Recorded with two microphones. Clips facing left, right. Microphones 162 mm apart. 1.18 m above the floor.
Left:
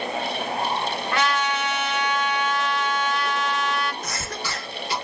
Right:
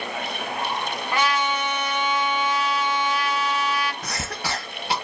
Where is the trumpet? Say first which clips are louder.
Right 1 dB; 15° right (ahead or behind), 1.6 m.